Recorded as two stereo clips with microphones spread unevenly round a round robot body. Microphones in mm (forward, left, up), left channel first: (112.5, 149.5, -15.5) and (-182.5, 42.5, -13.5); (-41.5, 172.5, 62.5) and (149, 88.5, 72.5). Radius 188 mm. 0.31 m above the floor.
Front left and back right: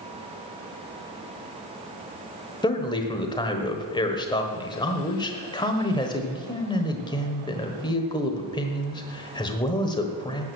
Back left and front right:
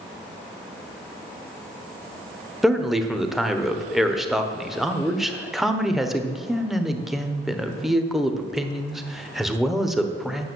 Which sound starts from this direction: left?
A man speaking, at 2.6 s.